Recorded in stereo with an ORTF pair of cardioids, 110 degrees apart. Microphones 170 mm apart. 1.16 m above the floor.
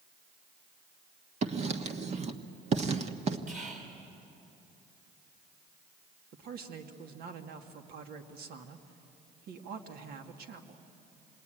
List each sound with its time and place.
1.4 s writing: 40° right, 1.3 m
3.5 s whispering: 50° right, 6 m
6.3 s a man speaking: 65° right, 2 m